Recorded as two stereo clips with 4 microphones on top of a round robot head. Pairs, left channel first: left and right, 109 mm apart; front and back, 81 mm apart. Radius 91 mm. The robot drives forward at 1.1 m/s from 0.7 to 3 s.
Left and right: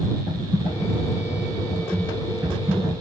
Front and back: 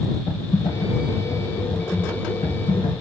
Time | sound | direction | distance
0.3 | typing on a keyboard | 10° right | 4 m